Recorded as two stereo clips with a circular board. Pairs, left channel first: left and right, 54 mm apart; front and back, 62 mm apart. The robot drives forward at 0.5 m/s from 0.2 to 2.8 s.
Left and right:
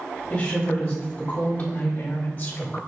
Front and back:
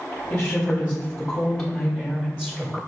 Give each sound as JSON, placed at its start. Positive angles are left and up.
{"t": 0.3, "sound": "a woman speaking", "azimuth_deg": 45, "distance_m": 1.5}